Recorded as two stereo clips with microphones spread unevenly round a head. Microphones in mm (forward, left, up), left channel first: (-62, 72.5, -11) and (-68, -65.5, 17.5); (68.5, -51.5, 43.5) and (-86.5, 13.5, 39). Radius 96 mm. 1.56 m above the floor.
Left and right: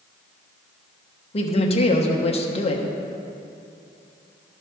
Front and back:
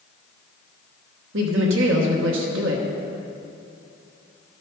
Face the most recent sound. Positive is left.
turn(degrees=135)